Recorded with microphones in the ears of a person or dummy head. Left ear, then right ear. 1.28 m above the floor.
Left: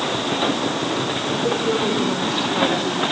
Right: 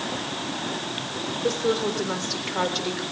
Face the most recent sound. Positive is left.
turn(degrees=-85)